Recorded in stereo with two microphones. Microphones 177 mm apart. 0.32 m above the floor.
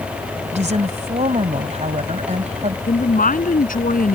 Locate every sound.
0.5 s a woman speaking: 45° right (ahead or behind)
2.9 s a woman speaking: 55° left (ahead or behind)